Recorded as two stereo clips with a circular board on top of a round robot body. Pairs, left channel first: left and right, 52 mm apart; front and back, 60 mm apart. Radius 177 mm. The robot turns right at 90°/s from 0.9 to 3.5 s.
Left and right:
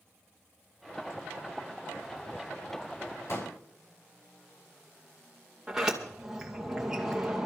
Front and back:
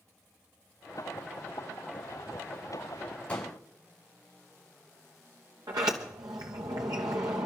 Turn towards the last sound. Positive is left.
turn(degrees=-170)